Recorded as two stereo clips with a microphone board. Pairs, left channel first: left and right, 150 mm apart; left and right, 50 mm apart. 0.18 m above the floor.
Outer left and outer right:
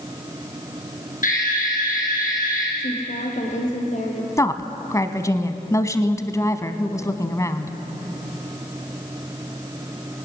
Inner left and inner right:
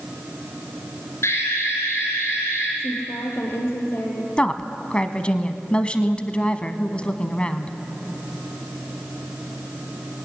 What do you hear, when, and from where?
1.2 s an alarm: 60° left (ahead or behind), 7 m
2.8 s a woman speaking: 50° left (ahead or behind), 5.5 m
4.4 s a woman speaking: 20° left (ahead or behind), 1.1 m